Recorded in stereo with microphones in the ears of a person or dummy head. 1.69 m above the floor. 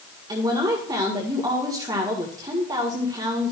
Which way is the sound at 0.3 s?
20° right (ahead or behind).